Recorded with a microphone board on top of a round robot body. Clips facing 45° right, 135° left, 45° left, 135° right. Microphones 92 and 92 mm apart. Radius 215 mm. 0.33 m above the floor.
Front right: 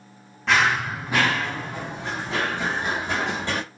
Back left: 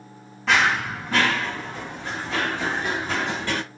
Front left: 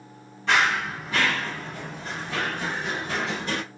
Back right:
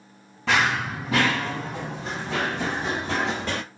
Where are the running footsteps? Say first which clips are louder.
Even, even; 135° right, 0.6 m; by 3.6 s 115° right, 2 m.